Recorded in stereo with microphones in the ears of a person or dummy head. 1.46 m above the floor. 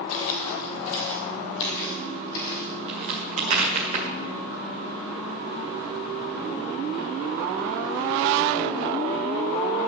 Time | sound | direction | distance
0.1 | footsteps | 45° left (ahead or behind) | 2 m
2.9 | a crack | 40° right (ahead or behind) | 1.9 m